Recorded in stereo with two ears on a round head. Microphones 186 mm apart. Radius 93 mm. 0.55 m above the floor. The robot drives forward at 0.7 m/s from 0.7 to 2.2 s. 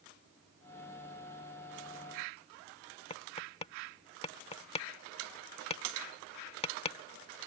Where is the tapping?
30° left (ahead or behind).